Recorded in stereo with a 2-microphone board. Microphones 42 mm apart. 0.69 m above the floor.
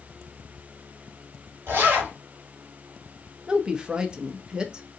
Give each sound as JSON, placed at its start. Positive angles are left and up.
{"t": 1.7, "sound": "a zipper", "side_deg": -55, "distance_m": 2.0}
{"t": 3.5, "sound": "a woman speaking", "side_deg": -20, "distance_m": 0.5}